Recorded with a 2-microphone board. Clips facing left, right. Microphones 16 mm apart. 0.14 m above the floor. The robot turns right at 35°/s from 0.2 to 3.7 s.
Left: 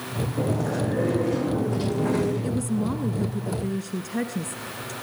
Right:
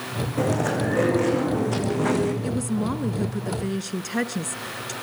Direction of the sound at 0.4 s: 110° right.